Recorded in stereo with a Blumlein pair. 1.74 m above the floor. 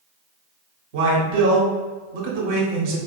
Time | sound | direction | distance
0.9 | a man speaking | 50° right | 1.6 m